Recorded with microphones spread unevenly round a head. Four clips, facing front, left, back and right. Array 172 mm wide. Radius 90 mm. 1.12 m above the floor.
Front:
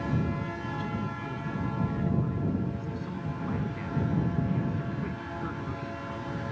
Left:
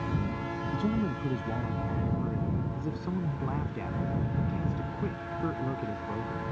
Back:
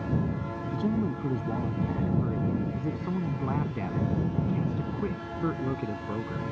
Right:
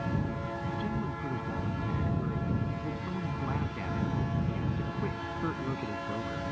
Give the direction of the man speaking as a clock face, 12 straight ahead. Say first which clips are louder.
Left 8 dB, back 10 dB; 7 o'clock.